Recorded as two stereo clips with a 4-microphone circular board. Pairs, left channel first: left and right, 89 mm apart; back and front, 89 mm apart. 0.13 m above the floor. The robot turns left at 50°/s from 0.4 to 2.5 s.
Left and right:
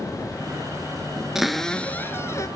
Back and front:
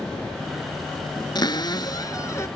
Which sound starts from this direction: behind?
A cupboard door, at 1.4 s.